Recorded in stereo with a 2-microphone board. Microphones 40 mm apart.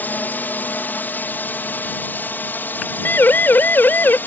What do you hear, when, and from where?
0.0 s a drone: 50° left (ahead or behind); by 4.3 s 55° left (ahead or behind)
3.0 s a siren: 60° left (ahead or behind); by 4.2 s 55° left (ahead or behind)